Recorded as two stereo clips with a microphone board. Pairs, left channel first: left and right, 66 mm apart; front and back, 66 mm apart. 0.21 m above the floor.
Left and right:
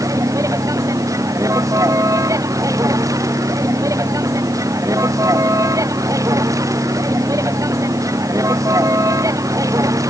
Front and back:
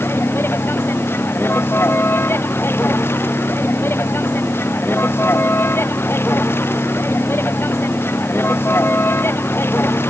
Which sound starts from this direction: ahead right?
A vehicle, at 0.0 s.